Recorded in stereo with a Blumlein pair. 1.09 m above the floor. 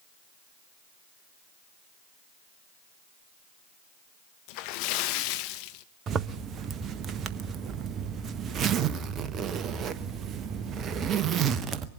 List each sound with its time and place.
4.5 s a splash: 45° left, 0.9 m
6.1 s a zipper: 25° right, 0.9 m